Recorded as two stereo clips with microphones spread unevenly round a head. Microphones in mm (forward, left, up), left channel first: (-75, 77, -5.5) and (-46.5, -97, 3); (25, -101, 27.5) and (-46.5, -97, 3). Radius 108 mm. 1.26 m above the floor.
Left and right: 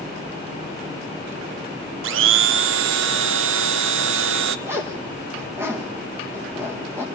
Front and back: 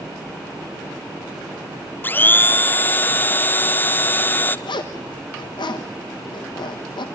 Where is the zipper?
Straight ahead, 1.2 m.